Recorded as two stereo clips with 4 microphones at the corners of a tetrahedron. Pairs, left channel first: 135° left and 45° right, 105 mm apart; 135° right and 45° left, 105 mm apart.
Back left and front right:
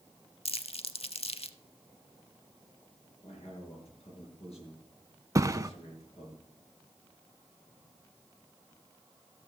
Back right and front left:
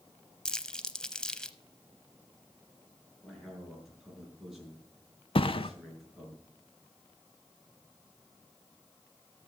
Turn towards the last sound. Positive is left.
turn(degrees=-105)